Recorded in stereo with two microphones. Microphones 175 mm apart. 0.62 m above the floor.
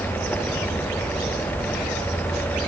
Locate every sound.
Only background noise.